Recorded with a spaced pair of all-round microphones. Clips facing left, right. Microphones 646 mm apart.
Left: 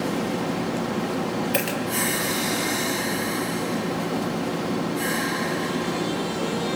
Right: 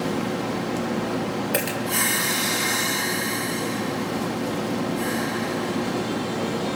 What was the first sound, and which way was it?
A dropped coin, 70° right (ahead or behind).